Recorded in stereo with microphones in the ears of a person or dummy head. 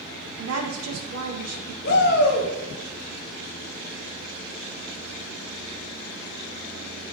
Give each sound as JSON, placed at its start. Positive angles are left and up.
{"t": 0.4, "sound": "a woman speaking", "side_deg": -80, "distance_m": 0.7}
{"t": 1.8, "sound": "a shout", "side_deg": 60, "distance_m": 0.8}